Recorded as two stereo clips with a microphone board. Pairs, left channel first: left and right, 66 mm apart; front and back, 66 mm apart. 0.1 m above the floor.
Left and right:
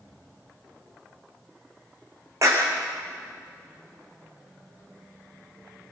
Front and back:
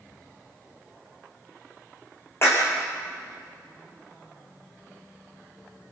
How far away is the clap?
About 5.5 m.